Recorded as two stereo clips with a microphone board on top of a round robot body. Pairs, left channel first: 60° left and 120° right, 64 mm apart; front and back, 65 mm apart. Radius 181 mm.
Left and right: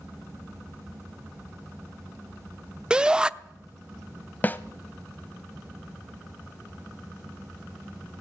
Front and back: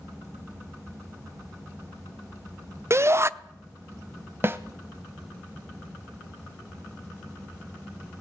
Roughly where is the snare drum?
Behind left.